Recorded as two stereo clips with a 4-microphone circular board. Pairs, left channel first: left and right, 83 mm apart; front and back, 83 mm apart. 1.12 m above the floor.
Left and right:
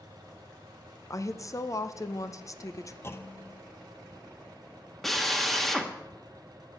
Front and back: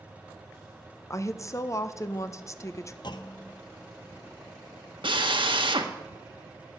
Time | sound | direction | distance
1.1 | a woman speaking | 45° left | 0.7 m
3.0 | a clunk | 30° left | 0.7 m
5.0 | a drill | straight behind | 1.1 m